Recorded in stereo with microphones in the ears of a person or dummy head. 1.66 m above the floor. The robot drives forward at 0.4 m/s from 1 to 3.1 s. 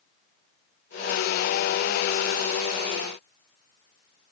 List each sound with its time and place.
Only background noise.